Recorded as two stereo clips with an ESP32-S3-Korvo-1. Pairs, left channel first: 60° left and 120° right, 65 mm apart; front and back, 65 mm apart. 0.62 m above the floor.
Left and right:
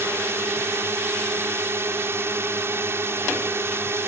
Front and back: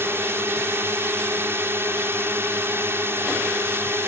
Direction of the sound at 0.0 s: 150° right.